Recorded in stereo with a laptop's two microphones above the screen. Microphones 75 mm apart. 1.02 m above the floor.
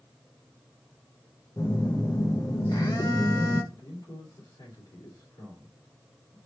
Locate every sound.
1.6 s a phone buzzing: 60° left (ahead or behind), 0.7 m
3.7 s a man speaking: 65° left (ahead or behind), 3 m